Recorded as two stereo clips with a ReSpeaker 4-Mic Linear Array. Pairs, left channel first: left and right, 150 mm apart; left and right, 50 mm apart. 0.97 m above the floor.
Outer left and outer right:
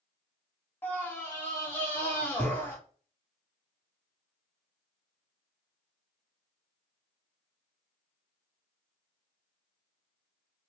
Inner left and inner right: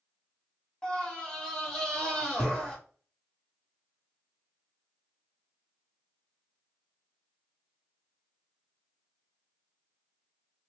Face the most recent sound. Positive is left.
turn(degrees=15)  # may be behind; listen again after turning